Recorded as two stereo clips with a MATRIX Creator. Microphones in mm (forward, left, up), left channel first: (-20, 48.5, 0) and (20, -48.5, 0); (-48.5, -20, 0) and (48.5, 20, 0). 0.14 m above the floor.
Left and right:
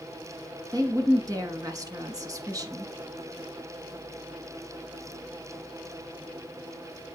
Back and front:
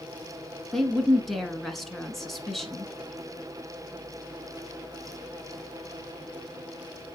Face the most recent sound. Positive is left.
turn(degrees=-70)